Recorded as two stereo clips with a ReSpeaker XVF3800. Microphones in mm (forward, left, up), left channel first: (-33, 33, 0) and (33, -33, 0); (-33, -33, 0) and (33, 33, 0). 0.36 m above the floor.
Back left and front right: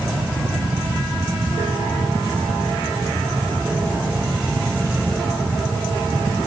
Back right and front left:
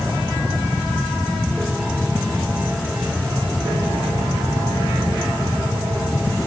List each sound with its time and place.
Only background noise.